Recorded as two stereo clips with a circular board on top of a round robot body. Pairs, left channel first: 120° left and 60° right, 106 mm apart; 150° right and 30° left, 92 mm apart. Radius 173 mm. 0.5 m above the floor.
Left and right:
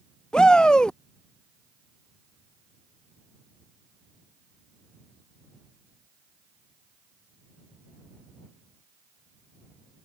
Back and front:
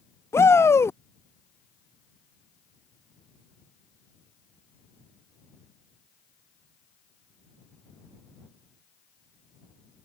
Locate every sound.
0.3 s a shout: 165° right